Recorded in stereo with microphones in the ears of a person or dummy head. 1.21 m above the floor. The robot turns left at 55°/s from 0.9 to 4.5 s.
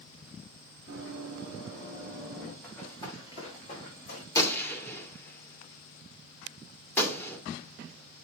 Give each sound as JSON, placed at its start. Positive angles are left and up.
{"t": 0.9, "sound": "running footsteps", "side_deg": -75, "distance_m": 6.0}
{"t": 2.6, "sound": "running footsteps", "side_deg": 5, "distance_m": 5.0}
{"t": 4.3, "sound": "a gunshot", "side_deg": 20, "distance_m": 2.5}